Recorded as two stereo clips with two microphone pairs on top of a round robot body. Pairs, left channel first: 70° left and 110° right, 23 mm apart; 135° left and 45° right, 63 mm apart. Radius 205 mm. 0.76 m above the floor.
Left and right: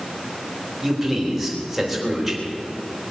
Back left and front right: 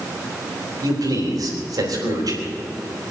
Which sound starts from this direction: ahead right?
A man speaking, at 0.8 s.